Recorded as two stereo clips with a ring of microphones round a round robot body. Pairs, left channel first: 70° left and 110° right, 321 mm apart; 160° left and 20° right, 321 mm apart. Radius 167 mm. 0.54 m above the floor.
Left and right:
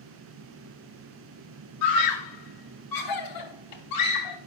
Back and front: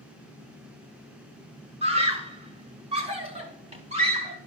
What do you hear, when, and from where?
1.8 s a scream: 50° left, 2 m